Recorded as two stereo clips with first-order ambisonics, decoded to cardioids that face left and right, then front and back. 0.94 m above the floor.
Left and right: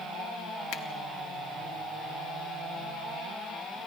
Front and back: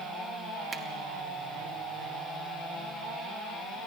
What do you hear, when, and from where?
0.7 s a finger snap: 110° left, 1.2 m